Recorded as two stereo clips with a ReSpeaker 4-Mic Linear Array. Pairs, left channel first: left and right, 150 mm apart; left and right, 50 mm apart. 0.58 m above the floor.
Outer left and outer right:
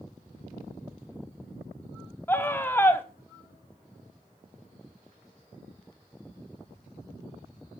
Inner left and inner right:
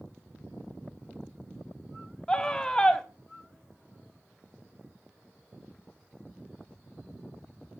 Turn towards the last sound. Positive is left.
turn(degrees=15)  # may be behind; listen again after turning